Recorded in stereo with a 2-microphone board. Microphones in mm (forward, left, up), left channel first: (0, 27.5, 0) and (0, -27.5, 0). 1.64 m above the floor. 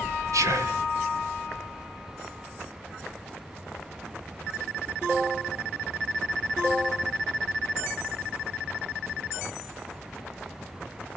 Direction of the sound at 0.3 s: 70° right (ahead or behind).